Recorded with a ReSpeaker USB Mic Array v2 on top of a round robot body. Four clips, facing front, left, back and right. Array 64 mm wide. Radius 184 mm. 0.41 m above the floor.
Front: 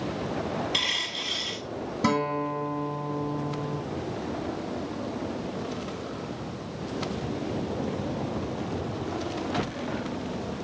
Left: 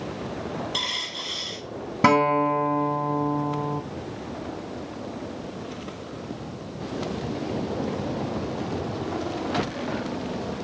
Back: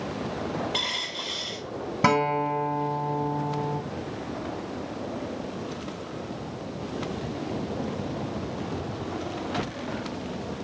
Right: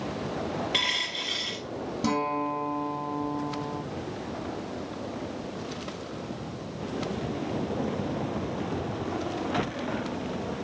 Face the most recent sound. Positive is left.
turn(degrees=125)